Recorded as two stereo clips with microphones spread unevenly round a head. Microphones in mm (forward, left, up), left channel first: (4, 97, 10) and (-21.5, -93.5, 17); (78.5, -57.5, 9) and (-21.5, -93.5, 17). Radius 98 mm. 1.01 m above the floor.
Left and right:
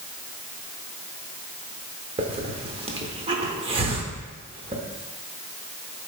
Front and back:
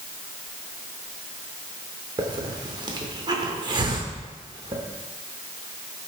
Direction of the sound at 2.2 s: 145° right.